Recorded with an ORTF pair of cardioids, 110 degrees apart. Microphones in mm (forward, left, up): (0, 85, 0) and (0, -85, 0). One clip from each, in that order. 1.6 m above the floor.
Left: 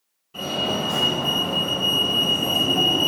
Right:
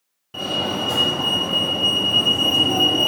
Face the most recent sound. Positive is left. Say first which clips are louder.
# right 1 dB
turn(degrees=-70)